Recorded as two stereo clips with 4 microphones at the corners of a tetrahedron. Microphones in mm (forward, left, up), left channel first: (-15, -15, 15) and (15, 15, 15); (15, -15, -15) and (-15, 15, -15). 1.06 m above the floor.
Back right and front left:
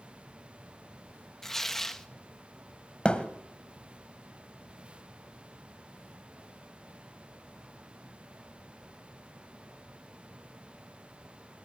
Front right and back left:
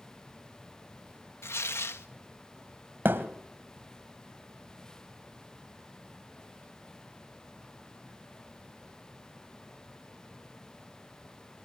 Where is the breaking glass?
No breaking glass in this recording.